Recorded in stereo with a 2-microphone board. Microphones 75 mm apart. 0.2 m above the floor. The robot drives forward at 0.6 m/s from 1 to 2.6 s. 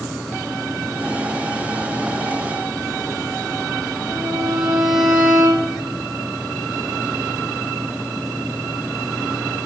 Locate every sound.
4.1 s a violin: 5° left (ahead or behind), 4.5 m